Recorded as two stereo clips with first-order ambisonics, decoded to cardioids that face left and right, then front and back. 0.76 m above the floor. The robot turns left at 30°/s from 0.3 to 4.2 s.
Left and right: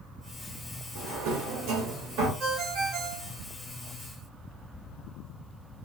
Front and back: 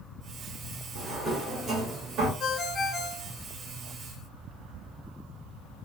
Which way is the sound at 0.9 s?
90° right.